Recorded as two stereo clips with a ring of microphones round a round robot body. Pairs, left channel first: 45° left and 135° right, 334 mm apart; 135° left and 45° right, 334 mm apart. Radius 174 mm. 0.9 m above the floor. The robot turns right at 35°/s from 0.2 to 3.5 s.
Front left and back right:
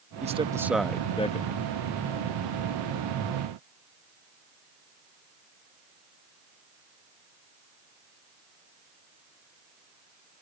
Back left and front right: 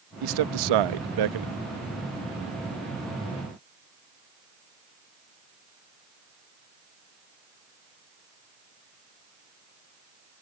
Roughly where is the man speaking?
Ahead right.